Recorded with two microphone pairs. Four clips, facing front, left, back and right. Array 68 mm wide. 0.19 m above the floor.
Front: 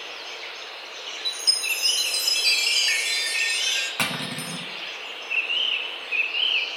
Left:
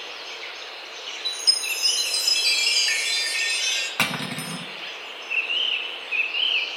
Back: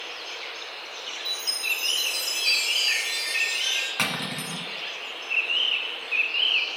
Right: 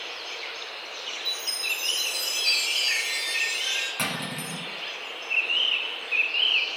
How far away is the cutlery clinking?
About 1.0 m.